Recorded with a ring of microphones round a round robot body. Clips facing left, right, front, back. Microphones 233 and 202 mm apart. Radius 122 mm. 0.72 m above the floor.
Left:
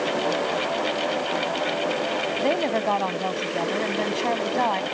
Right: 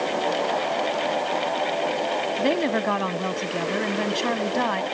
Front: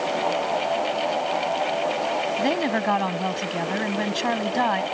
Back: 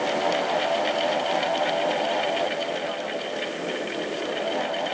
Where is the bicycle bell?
No bicycle bell in this recording.